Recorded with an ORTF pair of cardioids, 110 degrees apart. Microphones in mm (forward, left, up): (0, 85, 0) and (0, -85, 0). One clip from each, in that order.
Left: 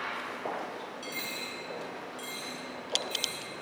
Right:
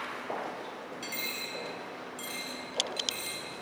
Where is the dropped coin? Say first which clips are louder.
Right 2 dB; 25° right, 1.9 m.